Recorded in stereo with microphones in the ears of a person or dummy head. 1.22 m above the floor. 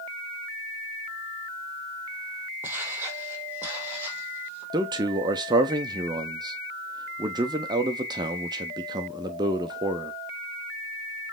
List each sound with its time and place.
2.6 s footsteps: 20° right (ahead or behind), 2.5 m; by 4.6 s 15° right (ahead or behind), 4 m
4.7 s a man speaking: 20° right (ahead or behind), 0.5 m